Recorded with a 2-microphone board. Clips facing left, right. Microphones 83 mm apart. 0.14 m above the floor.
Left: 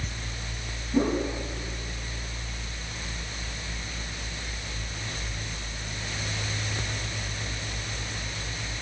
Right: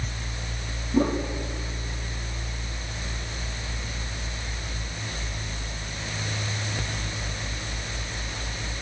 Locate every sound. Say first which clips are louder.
0.9 s a whoosh: right 1 dB; 15° left (ahead or behind), 5 m